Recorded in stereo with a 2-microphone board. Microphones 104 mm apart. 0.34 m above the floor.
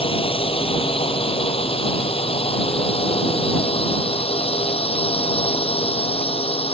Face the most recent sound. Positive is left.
turn(degrees=70)  # may be behind; listen again after turning